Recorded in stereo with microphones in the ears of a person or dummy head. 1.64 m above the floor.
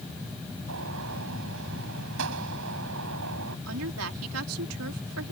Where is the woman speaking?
80° right.